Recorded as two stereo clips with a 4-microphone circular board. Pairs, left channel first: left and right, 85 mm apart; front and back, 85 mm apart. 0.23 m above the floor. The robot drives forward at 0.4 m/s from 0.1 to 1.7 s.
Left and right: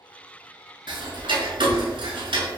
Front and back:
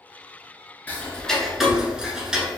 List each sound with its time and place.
0.9 s ticking: 70° right, 0.7 m; by 2.6 s 100° right, 0.6 m